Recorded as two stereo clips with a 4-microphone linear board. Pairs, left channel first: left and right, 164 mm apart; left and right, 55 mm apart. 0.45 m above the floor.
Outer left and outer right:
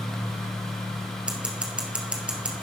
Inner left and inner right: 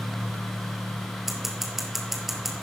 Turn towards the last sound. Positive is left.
turn(degrees=-5)  # may be behind; listen again after turning